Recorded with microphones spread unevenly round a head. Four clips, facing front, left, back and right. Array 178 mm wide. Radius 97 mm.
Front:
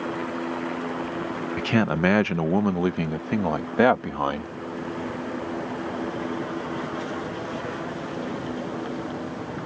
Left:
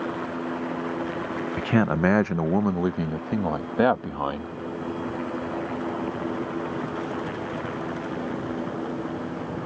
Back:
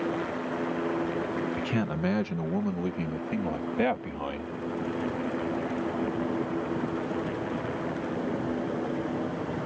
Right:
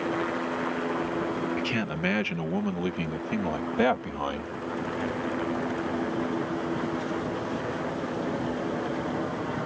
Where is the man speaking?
45° left; by 4.5 s 15° left.